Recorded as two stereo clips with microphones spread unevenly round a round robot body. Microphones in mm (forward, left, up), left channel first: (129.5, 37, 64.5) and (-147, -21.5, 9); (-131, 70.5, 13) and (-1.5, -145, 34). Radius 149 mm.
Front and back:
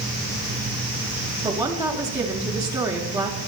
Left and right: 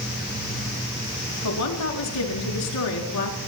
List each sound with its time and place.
1.4 s a woman speaking: 115° left, 4.5 m